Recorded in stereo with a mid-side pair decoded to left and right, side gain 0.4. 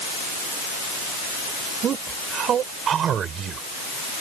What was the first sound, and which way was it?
A man speaking, 65° right.